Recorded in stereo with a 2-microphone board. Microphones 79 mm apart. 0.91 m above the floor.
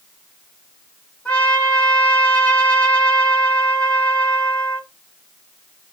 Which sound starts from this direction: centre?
A trumpet, at 1.2 s.